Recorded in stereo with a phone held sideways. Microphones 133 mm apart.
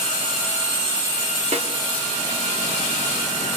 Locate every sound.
1.5 s a snare drum: 50° right (ahead or behind), 3.5 m